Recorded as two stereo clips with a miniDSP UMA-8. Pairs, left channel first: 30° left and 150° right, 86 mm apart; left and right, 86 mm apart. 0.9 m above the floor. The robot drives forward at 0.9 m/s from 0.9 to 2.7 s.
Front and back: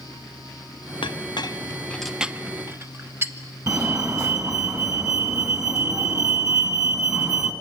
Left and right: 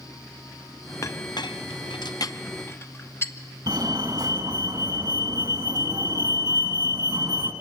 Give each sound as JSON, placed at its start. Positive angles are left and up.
{"t": 1.0, "sound": "a clink", "azimuth_deg": 40, "distance_m": 0.8}
{"t": 3.7, "sound": "a fire alarm", "azimuth_deg": -110, "distance_m": 2.5}